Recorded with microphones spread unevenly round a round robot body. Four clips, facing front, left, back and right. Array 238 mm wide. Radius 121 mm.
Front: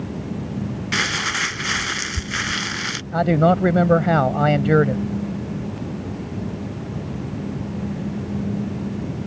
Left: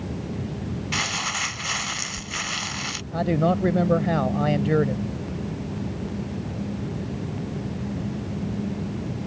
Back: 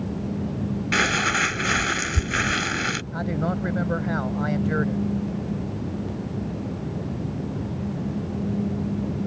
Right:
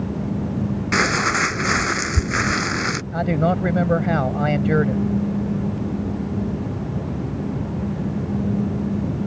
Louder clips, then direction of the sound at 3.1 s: Right 1 dB, front 13 dB; 10° right.